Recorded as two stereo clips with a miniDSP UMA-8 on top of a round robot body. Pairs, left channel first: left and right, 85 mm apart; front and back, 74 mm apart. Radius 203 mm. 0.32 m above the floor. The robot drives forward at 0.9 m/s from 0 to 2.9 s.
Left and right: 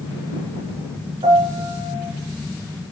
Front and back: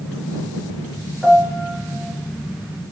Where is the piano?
95° right, 1.7 m; by 2.1 s 120° right, 2.0 m.